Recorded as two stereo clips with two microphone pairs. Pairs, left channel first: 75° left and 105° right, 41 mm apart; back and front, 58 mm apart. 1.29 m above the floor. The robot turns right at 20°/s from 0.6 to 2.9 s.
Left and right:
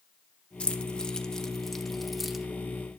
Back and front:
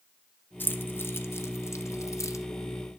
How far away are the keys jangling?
About 0.8 m.